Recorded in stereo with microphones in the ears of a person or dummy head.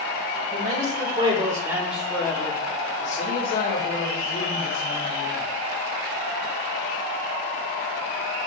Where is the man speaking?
40° right (ahead or behind), 1.2 m; by 5.5 s 75° left (ahead or behind), 1.9 m.